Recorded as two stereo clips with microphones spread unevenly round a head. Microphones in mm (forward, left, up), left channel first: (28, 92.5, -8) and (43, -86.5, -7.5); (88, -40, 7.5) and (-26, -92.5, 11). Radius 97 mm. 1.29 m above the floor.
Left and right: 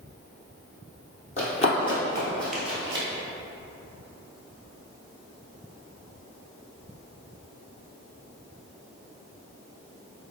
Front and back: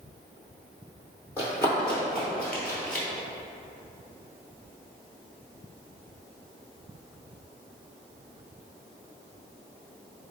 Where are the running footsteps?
90° left, 1.6 m; by 3.1 s 65° right, 1.3 m.